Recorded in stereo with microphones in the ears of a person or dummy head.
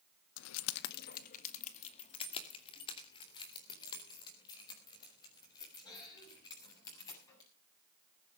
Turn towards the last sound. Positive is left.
turn(degrees=25)  # may be behind; listen again after turning